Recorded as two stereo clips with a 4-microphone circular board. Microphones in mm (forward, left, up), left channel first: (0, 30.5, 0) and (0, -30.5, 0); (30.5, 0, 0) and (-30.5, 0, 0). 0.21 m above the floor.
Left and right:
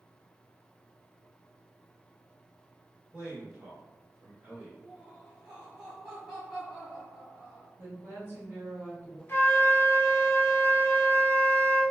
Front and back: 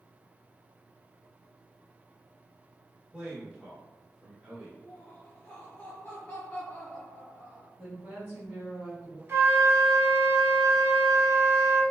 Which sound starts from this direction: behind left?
A flute, at 9.3 s.